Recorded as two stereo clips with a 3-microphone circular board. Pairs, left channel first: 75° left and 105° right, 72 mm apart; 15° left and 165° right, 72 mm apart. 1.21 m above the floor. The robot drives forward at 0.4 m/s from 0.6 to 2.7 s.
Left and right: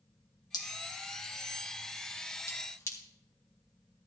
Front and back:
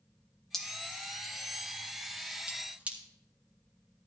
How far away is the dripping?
About 1.5 m.